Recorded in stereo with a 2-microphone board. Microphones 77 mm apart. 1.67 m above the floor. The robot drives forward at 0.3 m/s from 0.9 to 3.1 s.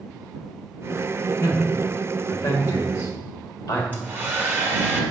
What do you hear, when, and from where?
1.4 s a man speaking: 50° left (ahead or behind), 1.6 m; by 3.8 s 35° left (ahead or behind), 2.0 m
3.9 s a hair dryer: 25° right (ahead or behind), 1.4 m